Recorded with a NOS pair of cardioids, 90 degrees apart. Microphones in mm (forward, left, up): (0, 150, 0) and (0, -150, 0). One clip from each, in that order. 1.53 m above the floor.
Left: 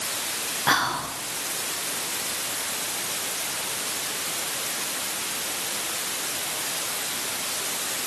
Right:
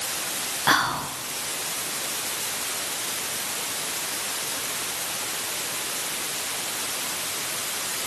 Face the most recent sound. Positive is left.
turn(degrees=-10)